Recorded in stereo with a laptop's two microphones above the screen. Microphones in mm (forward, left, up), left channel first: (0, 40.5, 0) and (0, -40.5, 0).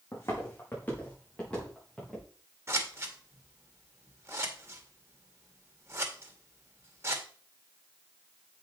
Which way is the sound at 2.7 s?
35° right (ahead or behind).